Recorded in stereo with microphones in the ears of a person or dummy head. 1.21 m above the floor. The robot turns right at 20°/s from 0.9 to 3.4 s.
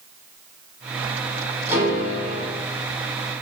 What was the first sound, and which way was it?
A piano, 15° right (ahead or behind).